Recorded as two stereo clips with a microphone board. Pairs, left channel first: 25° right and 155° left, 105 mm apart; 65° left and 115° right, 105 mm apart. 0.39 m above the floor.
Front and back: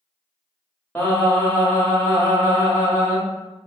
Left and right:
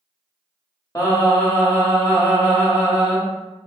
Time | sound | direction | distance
0.9 | singing | 35° left | 1.1 m